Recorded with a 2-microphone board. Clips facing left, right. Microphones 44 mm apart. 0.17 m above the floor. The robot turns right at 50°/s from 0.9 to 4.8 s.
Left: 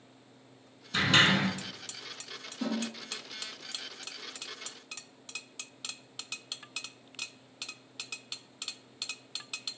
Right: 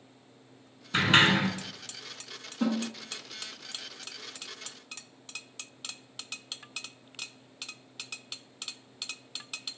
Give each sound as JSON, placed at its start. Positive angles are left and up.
{"t": 0.9, "sound": "a sliding door", "side_deg": -35, "distance_m": 0.7}
{"t": 2.6, "sound": "a snare drum", "side_deg": -40, "distance_m": 1.1}